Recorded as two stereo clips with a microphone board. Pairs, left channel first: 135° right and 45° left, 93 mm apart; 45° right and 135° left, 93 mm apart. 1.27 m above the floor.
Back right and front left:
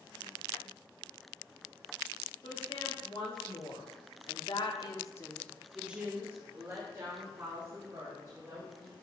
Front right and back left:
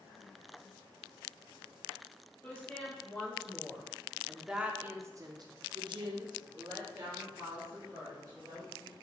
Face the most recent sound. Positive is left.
turn(degrees=85)